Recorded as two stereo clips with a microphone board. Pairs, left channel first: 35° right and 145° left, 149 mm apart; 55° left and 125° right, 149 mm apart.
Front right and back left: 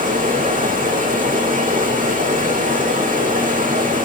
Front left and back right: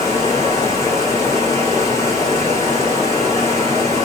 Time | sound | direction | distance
0.0 | running water | 125° left | 10 m